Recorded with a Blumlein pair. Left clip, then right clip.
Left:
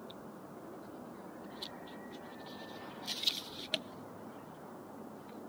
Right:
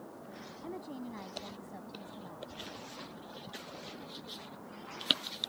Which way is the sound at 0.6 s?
60° right.